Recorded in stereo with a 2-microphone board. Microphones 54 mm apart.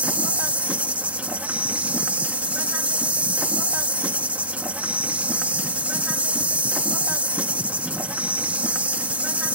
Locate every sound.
0.0 s an insect: 30° right (ahead or behind)